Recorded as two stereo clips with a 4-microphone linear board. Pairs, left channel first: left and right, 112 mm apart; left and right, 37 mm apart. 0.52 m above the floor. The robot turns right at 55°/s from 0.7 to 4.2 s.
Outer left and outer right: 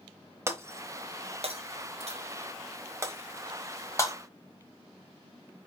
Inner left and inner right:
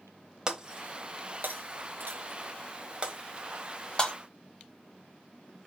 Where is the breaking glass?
25° right (ahead or behind), 0.9 m; by 4.1 s 35° left (ahead or behind), 0.9 m.